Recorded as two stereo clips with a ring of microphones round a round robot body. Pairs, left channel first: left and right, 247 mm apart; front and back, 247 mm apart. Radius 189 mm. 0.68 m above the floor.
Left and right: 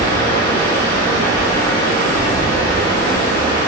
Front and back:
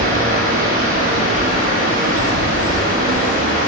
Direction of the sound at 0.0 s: 135° left.